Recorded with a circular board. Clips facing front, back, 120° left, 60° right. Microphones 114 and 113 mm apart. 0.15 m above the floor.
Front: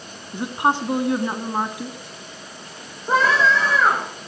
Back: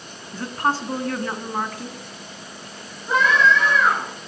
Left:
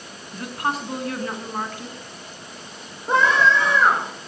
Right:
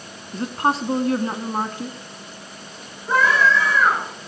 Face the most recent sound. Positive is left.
turn(degrees=55)